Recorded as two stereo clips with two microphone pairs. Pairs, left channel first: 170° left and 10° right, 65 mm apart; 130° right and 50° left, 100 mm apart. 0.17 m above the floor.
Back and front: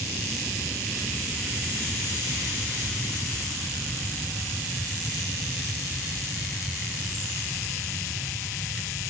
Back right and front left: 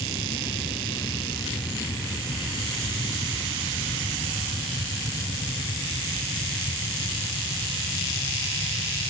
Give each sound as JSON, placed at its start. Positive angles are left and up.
{"t": 0.0, "sound": "an aircraft", "azimuth_deg": -90}